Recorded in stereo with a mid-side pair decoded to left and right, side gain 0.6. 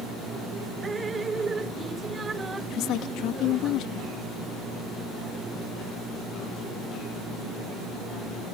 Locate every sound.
0.8 s dripping: 25° right
2.7 s a woman speaking: 65° left